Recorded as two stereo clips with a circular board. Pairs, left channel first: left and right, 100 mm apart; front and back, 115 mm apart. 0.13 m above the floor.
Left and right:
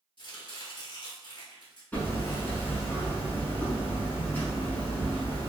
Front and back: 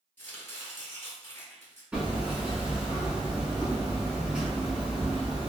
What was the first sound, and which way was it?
Chopping, 65° left.